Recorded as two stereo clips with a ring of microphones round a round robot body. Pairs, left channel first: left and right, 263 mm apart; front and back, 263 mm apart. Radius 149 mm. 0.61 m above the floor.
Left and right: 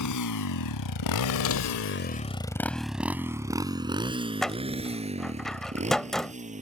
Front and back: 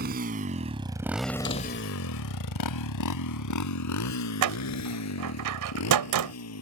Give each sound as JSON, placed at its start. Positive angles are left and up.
{"t": 0.0, "sound": "a motorcycle", "azimuth_deg": 120}
{"t": 1.4, "sound": "a door slam", "azimuth_deg": 55}
{"t": 4.4, "sound": "a door slam", "azimuth_deg": 180}